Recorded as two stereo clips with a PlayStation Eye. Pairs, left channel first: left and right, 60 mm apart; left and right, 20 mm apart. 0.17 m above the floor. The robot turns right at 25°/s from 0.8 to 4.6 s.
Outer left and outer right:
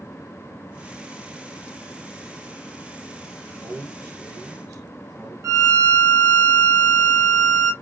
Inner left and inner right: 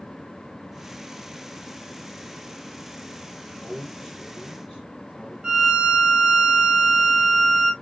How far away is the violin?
About 1.0 m.